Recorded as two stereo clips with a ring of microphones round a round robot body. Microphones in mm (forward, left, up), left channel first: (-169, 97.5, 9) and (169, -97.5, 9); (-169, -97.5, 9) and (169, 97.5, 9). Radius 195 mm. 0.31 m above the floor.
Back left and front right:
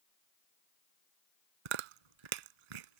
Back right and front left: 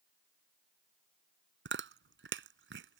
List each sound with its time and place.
1.6 s chewing: 30° right